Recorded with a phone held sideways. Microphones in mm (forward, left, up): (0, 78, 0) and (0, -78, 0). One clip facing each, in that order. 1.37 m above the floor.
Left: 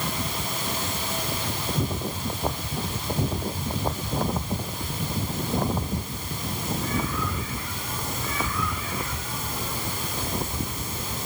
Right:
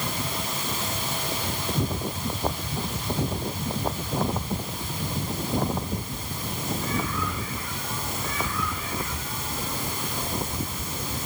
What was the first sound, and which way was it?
Only background noise.